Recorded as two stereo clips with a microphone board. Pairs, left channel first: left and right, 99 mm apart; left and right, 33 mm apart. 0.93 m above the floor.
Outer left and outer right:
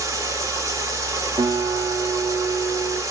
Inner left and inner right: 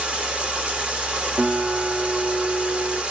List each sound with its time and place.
0.0 s running water: 35° right (ahead or behind), 2 m
1.4 s a guitar: 60° right (ahead or behind), 2.5 m